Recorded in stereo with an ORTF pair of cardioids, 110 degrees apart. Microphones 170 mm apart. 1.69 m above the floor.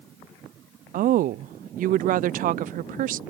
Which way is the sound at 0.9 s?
55° right.